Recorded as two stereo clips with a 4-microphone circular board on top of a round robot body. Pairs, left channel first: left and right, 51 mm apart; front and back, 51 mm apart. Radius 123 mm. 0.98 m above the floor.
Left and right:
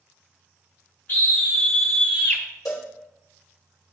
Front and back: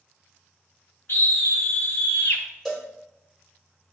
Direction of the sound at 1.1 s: 30° left.